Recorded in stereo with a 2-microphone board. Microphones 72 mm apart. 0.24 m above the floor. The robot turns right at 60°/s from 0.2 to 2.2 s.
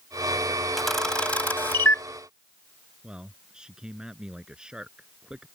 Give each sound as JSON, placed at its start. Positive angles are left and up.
{"t": 0.8, "sound": "a camera shutter", "side_deg": 0}
{"t": 3.0, "sound": "a man speaking", "side_deg": -10}